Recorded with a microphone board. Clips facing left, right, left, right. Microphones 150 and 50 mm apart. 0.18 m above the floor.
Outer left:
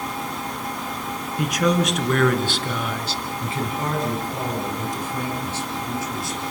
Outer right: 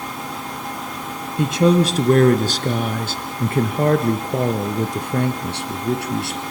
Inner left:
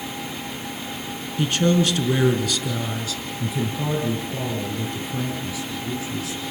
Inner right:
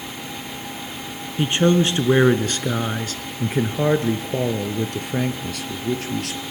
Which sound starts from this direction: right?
A man speaking, at 1.4 s.